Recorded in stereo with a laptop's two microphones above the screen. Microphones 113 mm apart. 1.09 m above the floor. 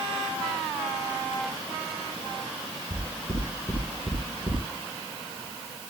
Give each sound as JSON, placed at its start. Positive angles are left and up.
{"t": 2.9, "sound": "knocking", "side_deg": -40, "distance_m": 9.0}